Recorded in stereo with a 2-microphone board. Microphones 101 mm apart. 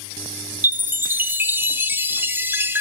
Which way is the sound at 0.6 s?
20° right (ahead or behind).